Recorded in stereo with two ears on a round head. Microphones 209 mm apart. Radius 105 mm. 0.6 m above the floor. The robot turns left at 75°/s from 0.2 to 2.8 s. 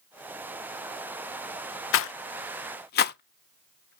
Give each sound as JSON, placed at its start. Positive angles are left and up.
{"t": 1.9, "sound": "a rattle", "side_deg": 55, "distance_m": 0.5}